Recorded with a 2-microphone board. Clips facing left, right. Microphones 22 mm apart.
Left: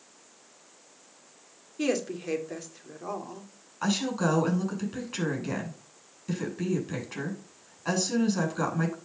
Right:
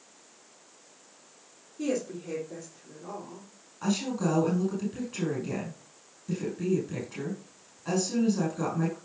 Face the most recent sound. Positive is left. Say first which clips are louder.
# left 2 dB
turn(degrees=30)  # may be behind; listen again after turning